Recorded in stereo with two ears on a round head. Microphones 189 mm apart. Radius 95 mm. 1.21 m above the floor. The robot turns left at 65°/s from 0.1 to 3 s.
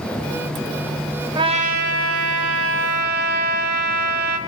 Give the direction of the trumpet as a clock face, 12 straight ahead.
1 o'clock.